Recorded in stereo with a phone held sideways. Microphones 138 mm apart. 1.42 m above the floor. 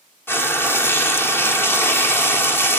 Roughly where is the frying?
Centre.